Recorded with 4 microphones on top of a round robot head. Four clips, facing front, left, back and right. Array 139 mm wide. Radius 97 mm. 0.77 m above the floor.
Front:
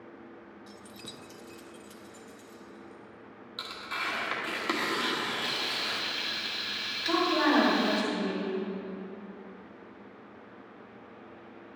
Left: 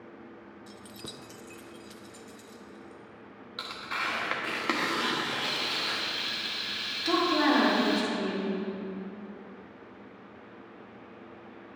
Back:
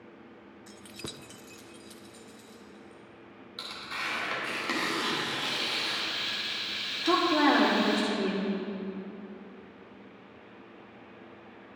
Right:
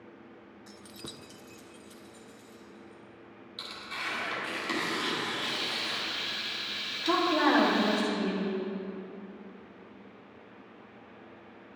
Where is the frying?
45° left, 1.8 m.